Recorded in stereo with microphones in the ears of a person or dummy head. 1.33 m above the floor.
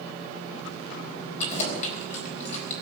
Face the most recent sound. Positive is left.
turn(degrees=40)  # may be behind; listen again after turning